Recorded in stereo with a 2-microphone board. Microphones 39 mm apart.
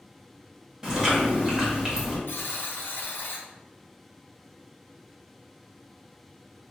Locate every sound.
0.8 s chewing: 15° right (ahead or behind), 1.0 m
2.3 s a buzzer: 70° left (ahead or behind), 0.5 m